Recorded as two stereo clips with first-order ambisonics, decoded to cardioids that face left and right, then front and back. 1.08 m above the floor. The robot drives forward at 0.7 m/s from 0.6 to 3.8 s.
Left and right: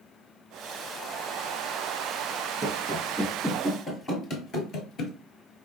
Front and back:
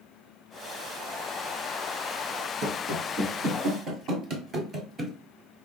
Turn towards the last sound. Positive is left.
turn(degrees=115)